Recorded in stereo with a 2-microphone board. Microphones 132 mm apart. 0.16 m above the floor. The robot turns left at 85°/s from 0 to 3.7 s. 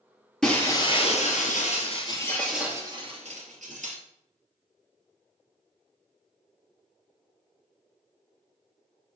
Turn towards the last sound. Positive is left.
turn(degrees=-105)